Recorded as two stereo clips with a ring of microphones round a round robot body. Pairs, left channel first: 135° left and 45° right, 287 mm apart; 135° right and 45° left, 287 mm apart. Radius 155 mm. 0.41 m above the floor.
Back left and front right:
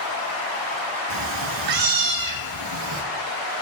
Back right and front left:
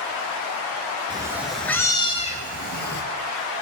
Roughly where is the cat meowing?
Ahead right.